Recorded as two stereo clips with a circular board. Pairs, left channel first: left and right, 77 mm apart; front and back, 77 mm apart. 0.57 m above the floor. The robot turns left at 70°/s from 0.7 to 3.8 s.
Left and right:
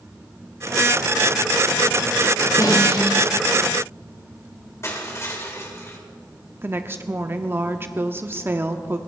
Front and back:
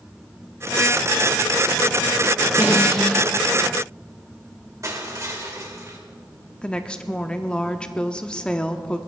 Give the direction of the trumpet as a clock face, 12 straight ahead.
I don't hear a trumpet.